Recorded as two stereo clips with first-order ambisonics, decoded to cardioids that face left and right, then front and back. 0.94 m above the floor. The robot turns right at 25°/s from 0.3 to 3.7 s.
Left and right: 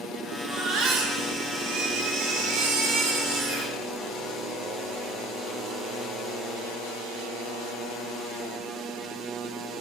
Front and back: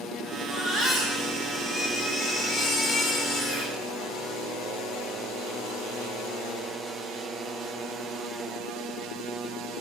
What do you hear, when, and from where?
0.5 s a baby crying: 135° right, 2 m; by 3.8 s 55° right, 2 m